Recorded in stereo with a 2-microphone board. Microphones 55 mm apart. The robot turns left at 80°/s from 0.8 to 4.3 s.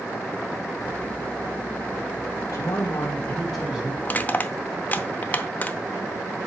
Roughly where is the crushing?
Left.